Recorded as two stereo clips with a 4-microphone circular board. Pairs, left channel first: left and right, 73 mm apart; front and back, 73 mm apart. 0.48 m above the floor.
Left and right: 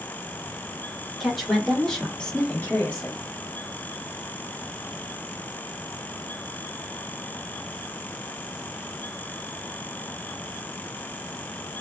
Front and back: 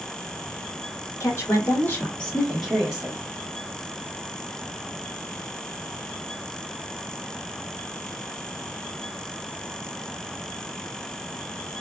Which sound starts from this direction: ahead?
A woman speaking, at 1.2 s.